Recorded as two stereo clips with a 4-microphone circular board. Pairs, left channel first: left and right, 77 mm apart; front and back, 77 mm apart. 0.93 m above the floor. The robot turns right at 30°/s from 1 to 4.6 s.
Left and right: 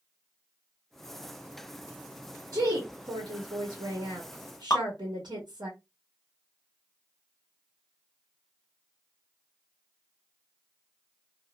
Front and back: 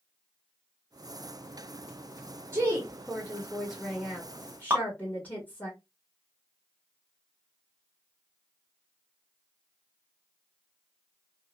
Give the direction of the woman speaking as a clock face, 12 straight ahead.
4 o'clock.